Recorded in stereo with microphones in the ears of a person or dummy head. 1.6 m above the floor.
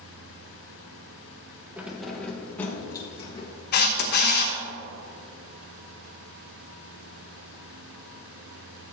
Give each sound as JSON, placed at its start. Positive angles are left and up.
{"t": 1.8, "sound": "keys jangling", "side_deg": -10, "distance_m": 1.0}
{"t": 3.7, "sound": "a camera shutter", "side_deg": 50, "distance_m": 1.0}